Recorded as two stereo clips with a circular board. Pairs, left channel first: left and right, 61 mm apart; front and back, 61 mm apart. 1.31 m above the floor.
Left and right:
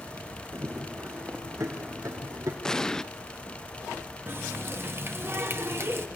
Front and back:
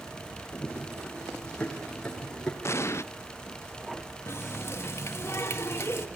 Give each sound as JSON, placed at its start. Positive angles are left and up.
{"t": 0.5, "sound": "running footsteps", "azimuth_deg": -65, "distance_m": 4.5}
{"t": 2.6, "sound": "an explosion", "azimuth_deg": 15, "distance_m": 0.6}
{"t": 4.3, "sound": "a running tap", "azimuth_deg": -40, "distance_m": 1.4}